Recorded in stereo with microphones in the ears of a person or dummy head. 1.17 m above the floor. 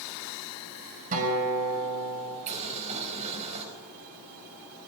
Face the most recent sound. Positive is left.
turn(degrees=-40)  # may be behind; listen again after turning